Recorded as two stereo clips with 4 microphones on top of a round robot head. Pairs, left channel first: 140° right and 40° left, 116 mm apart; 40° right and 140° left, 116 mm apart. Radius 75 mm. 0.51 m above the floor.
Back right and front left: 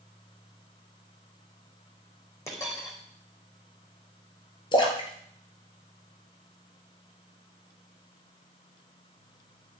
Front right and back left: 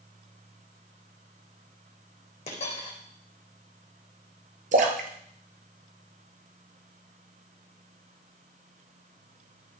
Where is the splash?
165° left, 1.8 m.